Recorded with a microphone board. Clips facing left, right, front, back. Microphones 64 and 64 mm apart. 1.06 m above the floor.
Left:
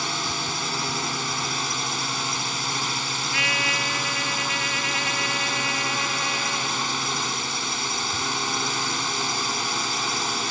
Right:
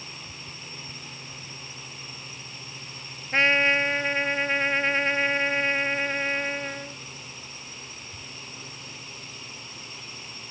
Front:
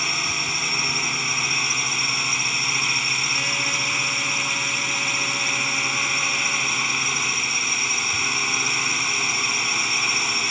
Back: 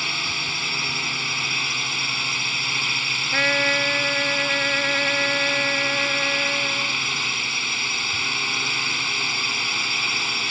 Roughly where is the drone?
Left.